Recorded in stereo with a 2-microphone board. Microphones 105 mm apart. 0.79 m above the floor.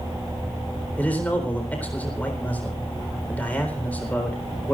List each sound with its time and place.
1.0 s a man speaking: 15° left (ahead or behind), 4 m